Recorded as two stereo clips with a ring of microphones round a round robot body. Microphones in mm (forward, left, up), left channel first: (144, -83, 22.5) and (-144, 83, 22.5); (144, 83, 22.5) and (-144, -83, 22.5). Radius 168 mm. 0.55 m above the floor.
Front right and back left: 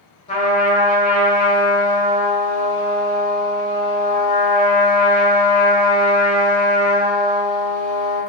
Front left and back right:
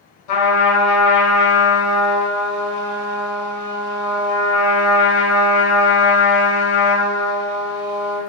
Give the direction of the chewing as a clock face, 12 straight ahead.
I don't hear chewing.